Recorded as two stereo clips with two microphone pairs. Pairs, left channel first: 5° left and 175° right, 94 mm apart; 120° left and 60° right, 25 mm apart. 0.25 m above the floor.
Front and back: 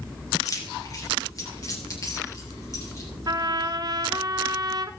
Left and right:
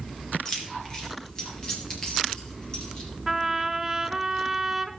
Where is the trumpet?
135° right, 0.5 m.